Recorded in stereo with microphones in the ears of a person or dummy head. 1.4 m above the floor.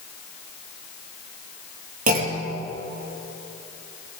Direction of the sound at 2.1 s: 50° right (ahead or behind).